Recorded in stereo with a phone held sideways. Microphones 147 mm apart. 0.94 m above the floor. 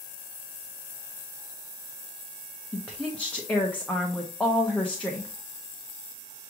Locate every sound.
2.7 s a woman speaking: 10° left (ahead or behind), 0.8 m